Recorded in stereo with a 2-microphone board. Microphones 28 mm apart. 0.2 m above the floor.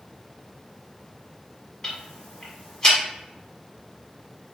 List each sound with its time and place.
1.8 s ticking: 25° left (ahead or behind), 1.1 m